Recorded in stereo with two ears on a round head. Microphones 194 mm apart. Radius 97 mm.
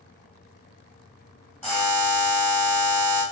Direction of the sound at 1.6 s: 10° left (ahead or behind).